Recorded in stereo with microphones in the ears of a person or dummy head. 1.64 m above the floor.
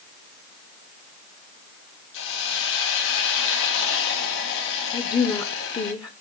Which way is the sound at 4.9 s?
20° left (ahead or behind).